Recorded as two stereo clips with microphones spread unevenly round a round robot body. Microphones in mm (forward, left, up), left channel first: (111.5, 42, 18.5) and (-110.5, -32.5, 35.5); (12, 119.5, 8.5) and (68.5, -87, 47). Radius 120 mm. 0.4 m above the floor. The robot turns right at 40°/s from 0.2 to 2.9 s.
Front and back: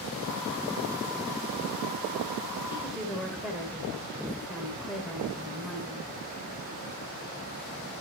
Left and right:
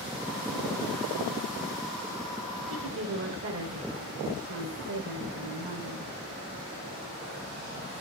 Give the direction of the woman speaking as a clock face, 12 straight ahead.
3 o'clock.